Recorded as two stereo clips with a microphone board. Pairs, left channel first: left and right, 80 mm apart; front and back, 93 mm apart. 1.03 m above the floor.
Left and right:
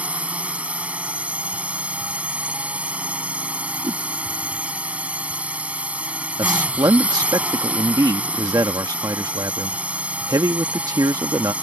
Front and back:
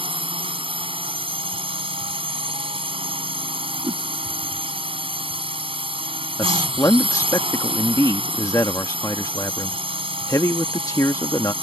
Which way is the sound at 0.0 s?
165° right.